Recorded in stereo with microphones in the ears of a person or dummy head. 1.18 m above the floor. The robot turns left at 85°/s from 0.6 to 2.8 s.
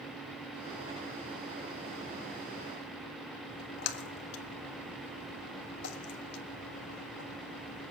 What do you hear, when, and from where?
3.5 s a splash: 60° left (ahead or behind), 1.6 m